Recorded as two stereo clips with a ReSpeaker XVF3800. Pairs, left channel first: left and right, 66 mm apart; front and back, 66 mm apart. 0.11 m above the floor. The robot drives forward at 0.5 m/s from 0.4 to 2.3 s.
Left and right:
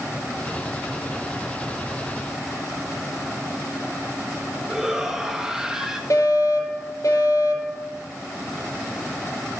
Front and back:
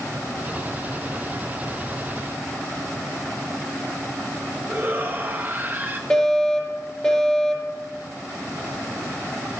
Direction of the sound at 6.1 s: 75° left.